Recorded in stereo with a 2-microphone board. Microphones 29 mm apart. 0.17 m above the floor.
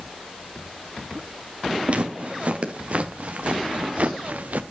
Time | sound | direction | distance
1.9 | footsteps | 50° right (ahead or behind) | 2.5 m